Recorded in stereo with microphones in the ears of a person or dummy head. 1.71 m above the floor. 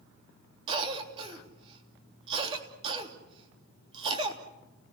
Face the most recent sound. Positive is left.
turn(degrees=-25)  # may be behind; listen again after turning